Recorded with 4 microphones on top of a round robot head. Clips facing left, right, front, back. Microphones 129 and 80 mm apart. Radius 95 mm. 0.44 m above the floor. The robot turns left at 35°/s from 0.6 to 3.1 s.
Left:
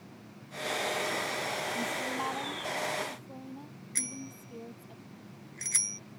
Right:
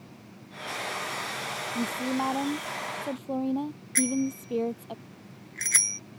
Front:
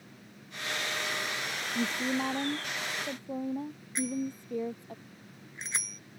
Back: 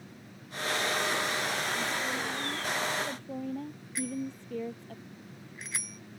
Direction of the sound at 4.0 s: 65° right.